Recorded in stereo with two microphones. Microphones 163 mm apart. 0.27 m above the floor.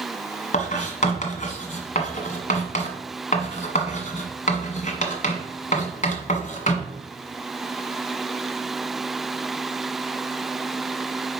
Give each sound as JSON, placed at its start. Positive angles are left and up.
{"t": 0.5, "sound": "writing", "side_deg": 50, "distance_m": 1.5}